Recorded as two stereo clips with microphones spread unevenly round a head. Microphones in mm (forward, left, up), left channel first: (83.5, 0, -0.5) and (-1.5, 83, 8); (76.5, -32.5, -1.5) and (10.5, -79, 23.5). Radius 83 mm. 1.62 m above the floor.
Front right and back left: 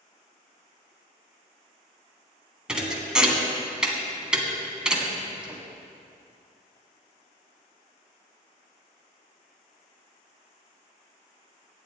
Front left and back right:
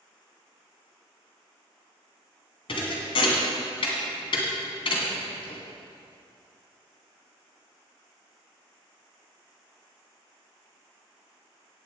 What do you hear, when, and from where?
2.7 s a thud: 60° left, 2.0 m